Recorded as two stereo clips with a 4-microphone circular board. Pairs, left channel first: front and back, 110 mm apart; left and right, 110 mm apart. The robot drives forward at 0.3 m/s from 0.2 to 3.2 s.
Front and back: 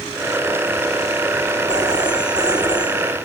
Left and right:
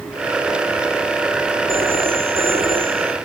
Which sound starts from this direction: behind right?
A phone ringing, at 1.7 s.